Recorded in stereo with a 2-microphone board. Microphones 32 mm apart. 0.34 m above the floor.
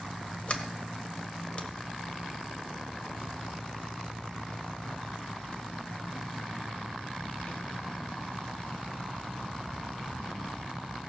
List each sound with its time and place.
0.5 s a sliding door: 40° left (ahead or behind), 1.4 m